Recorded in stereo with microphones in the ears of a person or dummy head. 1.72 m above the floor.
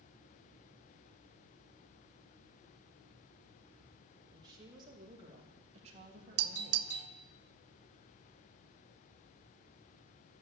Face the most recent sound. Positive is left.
turn(degrees=-80)